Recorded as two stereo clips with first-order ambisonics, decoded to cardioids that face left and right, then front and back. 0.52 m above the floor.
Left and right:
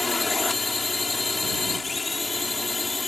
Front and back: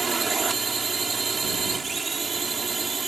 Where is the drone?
145° left.